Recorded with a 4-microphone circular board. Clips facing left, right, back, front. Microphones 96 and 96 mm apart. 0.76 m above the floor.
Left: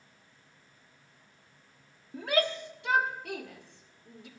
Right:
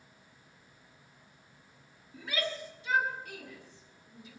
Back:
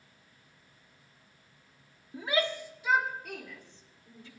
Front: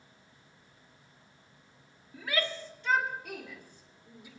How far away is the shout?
About 1.3 m.